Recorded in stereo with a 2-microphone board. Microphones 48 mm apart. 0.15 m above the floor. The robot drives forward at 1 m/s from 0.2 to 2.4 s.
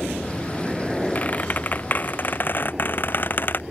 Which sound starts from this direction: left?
A squeak, at 1.1 s.